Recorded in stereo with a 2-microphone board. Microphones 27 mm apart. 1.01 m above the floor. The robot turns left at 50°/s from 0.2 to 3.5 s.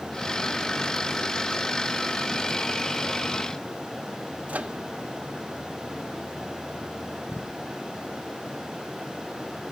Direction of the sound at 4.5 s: 65° right (ahead or behind).